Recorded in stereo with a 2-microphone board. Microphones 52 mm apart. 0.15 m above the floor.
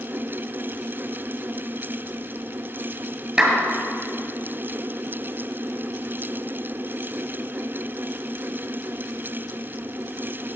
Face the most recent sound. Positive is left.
turn(degrees=-15)  # may be behind; listen again after turning